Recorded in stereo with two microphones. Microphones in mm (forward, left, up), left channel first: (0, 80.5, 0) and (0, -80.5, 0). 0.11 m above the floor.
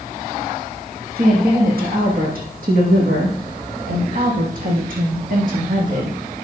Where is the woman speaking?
70° right (ahead or behind), 5 m; by 6.2 s 60° right (ahead or behind), 7 m.